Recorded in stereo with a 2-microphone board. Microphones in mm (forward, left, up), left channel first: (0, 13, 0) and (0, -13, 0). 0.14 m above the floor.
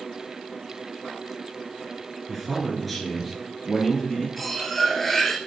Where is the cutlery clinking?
5° left (ahead or behind), 1.6 m.